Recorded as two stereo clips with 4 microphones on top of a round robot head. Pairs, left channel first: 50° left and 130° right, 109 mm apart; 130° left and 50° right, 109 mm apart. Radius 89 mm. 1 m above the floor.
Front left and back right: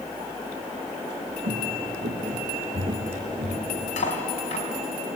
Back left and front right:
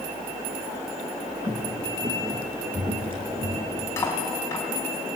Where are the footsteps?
115° right, 4 m; by 3.8 s 85° right, 3 m.